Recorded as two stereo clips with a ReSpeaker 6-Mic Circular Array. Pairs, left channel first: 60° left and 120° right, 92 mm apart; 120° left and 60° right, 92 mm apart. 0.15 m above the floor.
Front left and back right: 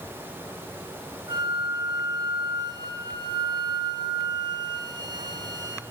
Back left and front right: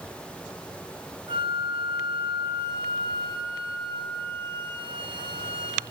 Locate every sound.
1.3 s a flute: 80° right, 1.9 m